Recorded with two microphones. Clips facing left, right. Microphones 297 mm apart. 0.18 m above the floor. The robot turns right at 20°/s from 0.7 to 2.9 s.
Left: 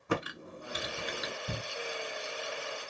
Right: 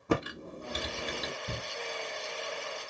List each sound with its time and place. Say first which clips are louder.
0.1 s typing on a keyboard: right 4 dB; 45° right (ahead or behind), 0.8 m; by 1.3 s 40° right (ahead or behind), 0.8 m
1.5 s a shout: even; centre (ahead or behind), 1.3 m